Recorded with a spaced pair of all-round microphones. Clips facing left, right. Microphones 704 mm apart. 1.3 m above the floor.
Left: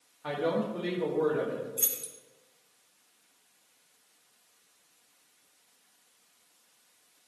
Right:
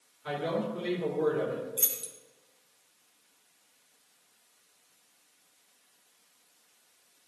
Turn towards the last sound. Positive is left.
turn(degrees=-60)  # may be behind; listen again after turning